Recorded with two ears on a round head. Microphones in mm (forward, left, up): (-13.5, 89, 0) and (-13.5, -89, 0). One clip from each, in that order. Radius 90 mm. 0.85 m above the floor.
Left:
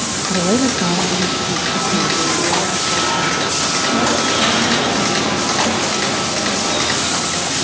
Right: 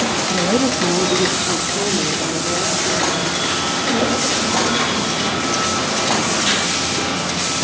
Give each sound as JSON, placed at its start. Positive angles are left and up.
{"t": 0.3, "sound": "a woman speaking", "side_deg": 45, "distance_m": 1.1}